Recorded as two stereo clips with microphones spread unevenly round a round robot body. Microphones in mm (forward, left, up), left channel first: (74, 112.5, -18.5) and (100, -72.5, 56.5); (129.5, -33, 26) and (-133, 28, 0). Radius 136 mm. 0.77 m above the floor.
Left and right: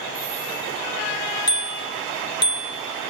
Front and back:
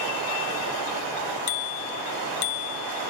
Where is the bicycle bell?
30° left, 3 m.